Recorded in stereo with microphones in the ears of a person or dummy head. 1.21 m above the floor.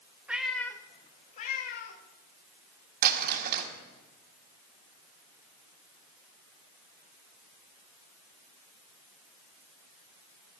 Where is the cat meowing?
Centre (ahead or behind), 0.8 m; by 2.0 s 65° left (ahead or behind), 1.3 m.